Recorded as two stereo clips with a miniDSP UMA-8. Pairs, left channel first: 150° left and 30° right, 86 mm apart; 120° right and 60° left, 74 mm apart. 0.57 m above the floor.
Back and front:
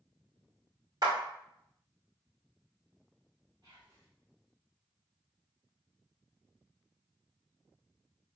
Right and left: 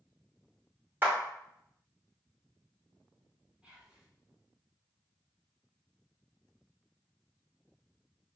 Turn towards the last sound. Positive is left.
turn(degrees=-15)